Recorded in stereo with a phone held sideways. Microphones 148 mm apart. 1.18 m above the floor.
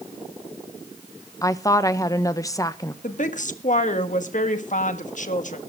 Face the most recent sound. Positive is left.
turn(degrees=55)  # may be behind; listen again after turning